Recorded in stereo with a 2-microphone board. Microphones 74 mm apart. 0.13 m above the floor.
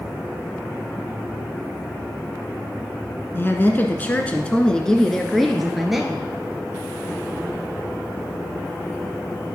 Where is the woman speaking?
35° left (ahead or behind), 1.3 m; by 6.3 s 5° right (ahead or behind), 1.9 m.